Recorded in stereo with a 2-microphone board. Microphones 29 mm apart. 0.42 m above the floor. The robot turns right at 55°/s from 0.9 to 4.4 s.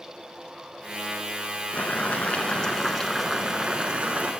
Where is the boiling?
105° left, 0.9 m; by 4.3 s 115° right, 0.9 m.